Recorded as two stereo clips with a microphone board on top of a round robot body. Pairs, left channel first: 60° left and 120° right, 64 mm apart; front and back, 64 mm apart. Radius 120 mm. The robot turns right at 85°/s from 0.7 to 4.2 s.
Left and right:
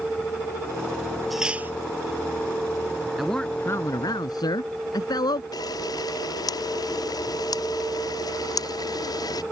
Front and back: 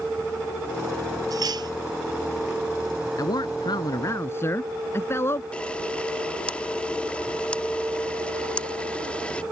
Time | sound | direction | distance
1.3 | cutlery clinking | 150° left | ?
3.2 | a man speaking | 35° right | ?
5.5 | a camera shutter | 75° left | ?